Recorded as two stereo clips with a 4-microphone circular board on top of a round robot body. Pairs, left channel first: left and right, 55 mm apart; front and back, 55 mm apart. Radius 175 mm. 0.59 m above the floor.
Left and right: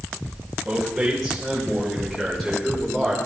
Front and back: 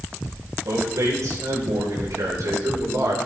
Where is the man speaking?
175° right, 4 m; by 3.1 s 175° left, 3 m.